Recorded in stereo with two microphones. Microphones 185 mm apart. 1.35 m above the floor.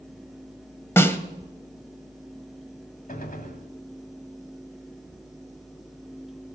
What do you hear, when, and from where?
1.0 s a snare drum: 10° left (ahead or behind), 1.2 m
3.1 s a gunshot: 45° left (ahead or behind), 1.7 m